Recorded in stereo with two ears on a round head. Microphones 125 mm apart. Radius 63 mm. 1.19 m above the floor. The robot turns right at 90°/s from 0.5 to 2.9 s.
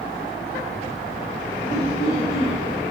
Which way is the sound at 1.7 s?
65° left.